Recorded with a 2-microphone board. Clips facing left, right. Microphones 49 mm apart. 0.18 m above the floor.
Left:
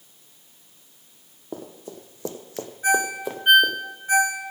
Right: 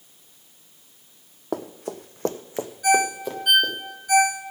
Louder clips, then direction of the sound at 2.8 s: Right 2 dB; 30° left (ahead or behind).